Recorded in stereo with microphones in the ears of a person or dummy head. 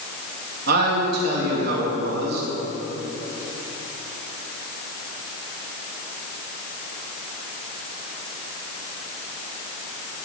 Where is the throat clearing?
No throat clearing in this recording.